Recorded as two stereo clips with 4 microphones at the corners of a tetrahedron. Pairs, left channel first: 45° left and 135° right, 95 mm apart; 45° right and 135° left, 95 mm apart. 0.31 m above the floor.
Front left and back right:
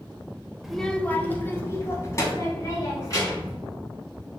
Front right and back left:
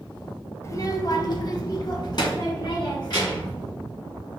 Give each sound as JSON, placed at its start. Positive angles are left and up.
{"t": 0.6, "sound": "a child speaking", "azimuth_deg": -50, "distance_m": 0.6}